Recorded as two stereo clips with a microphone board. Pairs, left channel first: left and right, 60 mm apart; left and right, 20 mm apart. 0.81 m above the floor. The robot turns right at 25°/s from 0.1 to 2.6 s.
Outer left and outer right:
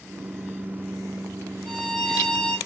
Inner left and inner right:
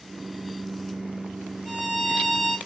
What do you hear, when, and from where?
1.6 s a violin: 65° right (ahead or behind), 2.5 m; by 2.6 s 80° right, 2.5 m